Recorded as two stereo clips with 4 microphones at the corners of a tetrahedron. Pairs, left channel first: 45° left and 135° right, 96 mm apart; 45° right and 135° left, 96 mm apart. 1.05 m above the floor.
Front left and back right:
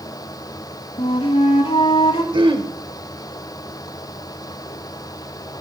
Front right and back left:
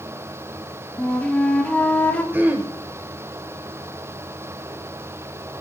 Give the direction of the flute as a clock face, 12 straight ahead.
11 o'clock.